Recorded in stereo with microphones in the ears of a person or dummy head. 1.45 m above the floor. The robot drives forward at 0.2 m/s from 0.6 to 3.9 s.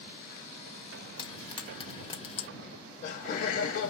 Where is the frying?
30° left (ahead or behind), 1.2 m; by 2.5 s 35° left (ahead or behind), 1.0 m.